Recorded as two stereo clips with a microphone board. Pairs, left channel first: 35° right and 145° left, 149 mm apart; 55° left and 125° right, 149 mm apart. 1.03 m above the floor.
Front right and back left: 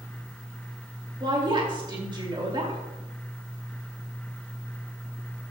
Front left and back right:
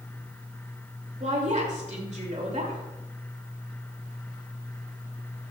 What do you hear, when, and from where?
1.2 s a woman speaking: 160° right, 2.5 m